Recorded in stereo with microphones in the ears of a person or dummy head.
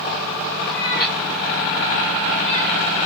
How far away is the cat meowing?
About 1.7 m.